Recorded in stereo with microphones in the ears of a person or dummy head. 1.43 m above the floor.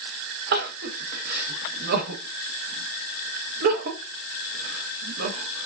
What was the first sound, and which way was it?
Crying, 65° right (ahead or behind).